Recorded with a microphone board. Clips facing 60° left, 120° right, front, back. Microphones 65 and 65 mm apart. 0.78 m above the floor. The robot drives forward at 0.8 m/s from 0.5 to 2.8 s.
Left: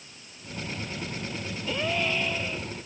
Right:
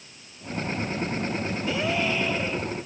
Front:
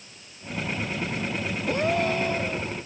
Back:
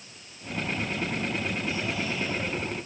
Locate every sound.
1.7 s a gasp: 35° right